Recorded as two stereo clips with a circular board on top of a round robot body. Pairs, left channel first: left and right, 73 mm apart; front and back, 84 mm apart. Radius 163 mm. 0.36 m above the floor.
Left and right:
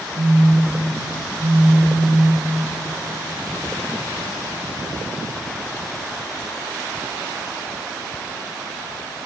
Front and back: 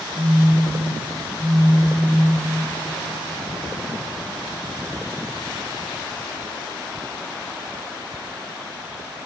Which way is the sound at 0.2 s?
65° right.